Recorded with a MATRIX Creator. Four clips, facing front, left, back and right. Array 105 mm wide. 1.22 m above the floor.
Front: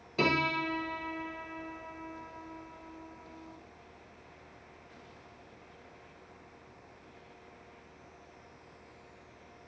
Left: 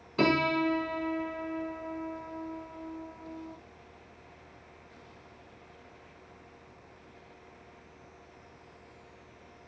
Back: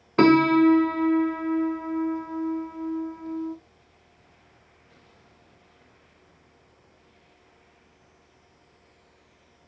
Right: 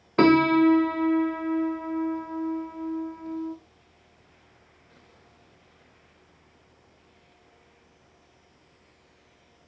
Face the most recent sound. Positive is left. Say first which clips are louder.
# right 9 dB, back 14 dB
turn(degrees=-140)